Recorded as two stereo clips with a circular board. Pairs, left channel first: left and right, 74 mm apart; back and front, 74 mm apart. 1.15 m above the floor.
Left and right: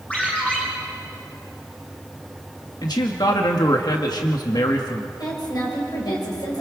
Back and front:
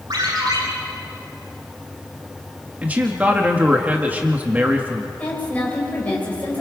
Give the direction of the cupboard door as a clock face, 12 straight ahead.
No cupboard door in this recording.